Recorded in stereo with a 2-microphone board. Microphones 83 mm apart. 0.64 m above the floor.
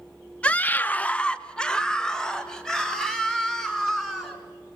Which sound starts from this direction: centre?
A scream, at 0.4 s.